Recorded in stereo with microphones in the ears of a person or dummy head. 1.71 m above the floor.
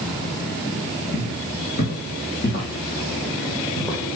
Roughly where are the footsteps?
Left.